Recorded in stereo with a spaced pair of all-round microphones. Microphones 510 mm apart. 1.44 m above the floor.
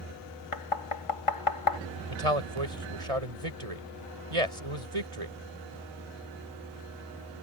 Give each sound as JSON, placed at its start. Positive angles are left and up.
{"t": 0.5, "sound": "knocking", "side_deg": 65}
{"t": 2.1, "sound": "a man speaking", "side_deg": -85}